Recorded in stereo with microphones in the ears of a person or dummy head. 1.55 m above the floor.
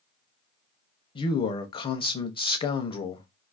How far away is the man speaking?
About 0.5 m.